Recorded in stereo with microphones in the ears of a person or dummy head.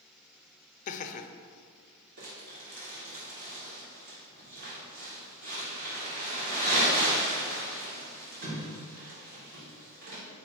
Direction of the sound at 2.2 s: 65° right (ahead or behind).